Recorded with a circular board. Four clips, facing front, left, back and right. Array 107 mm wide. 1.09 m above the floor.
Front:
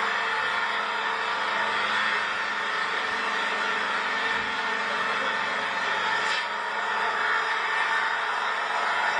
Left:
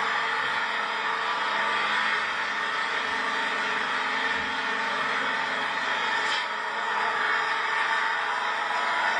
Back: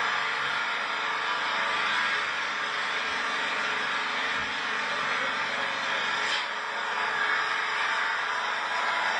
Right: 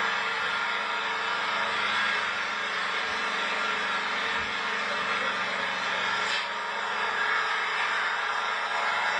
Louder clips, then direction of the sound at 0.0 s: Left 2 dB, front 2 dB; 30° left.